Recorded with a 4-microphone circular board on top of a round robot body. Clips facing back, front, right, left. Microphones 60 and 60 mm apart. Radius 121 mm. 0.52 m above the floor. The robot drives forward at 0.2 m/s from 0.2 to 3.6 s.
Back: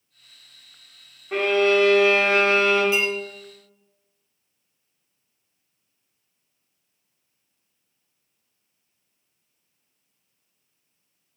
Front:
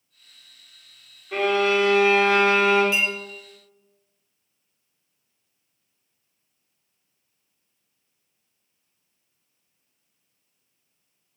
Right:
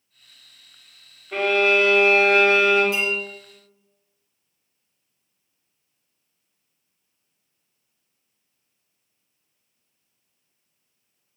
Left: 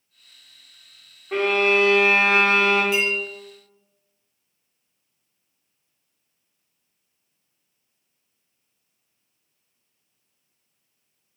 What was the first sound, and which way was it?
A violin, 125° left.